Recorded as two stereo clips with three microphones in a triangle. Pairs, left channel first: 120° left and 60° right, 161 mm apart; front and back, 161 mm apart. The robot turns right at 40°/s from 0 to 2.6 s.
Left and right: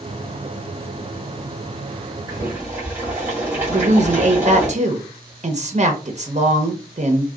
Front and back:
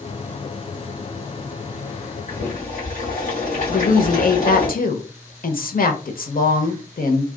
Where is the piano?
No piano in this recording.